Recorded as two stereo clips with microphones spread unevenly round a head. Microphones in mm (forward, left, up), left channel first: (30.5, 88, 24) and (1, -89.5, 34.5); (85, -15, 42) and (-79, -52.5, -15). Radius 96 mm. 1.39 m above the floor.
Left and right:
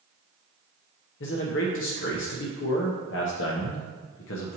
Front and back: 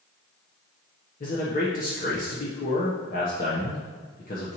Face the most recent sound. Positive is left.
turn(degrees=60)